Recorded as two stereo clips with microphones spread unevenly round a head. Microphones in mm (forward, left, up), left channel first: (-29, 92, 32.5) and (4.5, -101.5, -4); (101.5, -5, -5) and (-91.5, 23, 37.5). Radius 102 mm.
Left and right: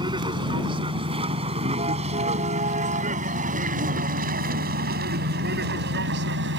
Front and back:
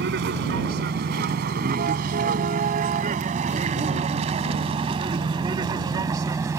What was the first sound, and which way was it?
A vehicle, 150° right.